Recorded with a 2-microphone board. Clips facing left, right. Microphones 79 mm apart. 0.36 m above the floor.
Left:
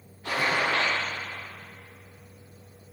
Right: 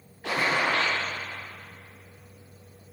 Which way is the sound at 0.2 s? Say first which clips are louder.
Right 1 dB; 80° right.